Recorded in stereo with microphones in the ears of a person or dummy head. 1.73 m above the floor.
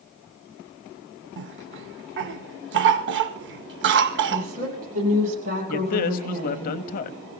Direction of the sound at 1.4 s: 60° right (ahead or behind).